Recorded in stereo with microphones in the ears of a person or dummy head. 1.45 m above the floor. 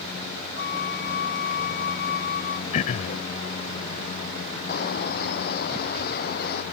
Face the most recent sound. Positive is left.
turn(degrees=55)  # may be behind; listen again after turning